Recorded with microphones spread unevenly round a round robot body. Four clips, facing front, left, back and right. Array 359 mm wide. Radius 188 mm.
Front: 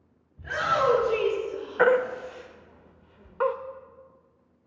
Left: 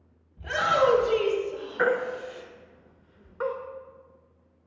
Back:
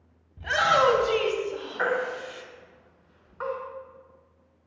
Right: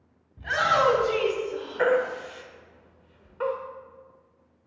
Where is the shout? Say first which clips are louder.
Right 1 dB, back 4 dB; 165° right, 4 m; by 2.4 s 170° right, 3 m.